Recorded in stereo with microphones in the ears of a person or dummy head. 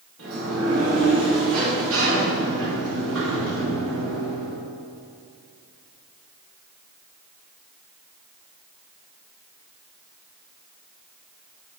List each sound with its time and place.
0.2 s a sliding door: 75° right (ahead or behind), 2.0 m